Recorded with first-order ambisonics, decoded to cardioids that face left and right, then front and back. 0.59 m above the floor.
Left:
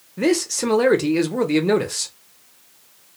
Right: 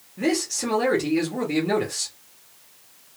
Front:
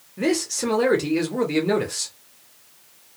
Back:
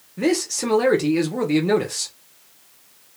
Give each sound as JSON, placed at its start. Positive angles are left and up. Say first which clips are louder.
{"t": 0.2, "sound": "a man speaking", "louder": "left 4 dB, back 1 dB", "azimuth_deg": 100, "distance_m": 0.7}